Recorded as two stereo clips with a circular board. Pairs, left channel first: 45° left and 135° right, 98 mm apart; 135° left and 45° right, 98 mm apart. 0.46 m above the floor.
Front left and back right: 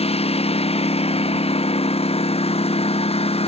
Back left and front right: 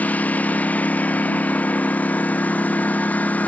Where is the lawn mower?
60° left.